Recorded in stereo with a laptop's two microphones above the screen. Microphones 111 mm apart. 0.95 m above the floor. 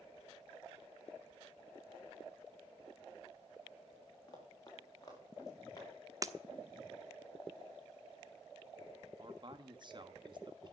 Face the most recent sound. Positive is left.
turn(degrees=-40)  # may be behind; listen again after turning